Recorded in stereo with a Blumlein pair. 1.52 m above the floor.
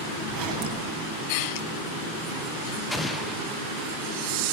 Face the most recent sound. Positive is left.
turn(degrees=5)